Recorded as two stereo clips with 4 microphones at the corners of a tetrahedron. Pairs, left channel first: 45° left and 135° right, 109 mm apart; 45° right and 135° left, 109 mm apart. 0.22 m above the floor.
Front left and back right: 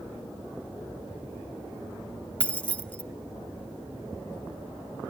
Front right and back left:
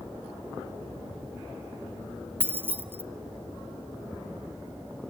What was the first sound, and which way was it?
Keys jangling, 105° left.